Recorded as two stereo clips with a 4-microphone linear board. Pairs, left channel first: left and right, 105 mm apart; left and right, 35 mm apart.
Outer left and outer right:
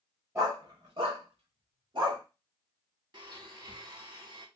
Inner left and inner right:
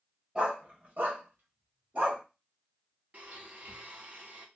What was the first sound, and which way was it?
A dog barking, 30° right (ahead or behind).